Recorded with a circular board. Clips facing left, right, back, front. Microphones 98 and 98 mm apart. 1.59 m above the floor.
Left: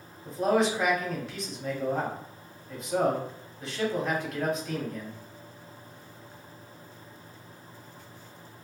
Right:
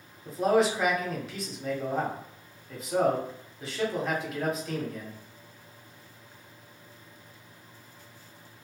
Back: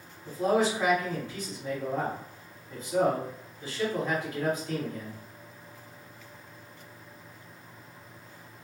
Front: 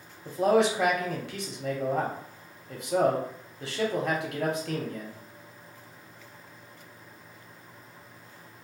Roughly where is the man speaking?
Ahead.